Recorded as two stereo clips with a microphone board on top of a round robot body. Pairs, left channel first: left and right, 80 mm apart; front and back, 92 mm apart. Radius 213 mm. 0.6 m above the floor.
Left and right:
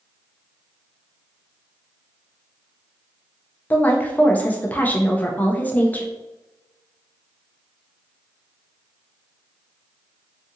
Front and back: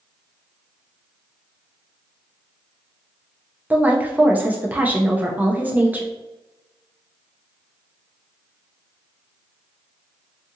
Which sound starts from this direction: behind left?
A woman speaking, at 3.7 s.